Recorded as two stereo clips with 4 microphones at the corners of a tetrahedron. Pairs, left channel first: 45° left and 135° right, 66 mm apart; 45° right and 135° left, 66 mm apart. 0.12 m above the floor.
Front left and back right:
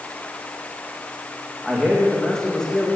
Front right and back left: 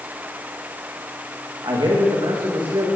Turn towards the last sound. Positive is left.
turn(degrees=120)